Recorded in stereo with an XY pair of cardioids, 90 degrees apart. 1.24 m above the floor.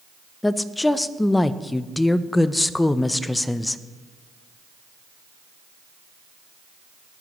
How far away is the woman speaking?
About 0.6 m.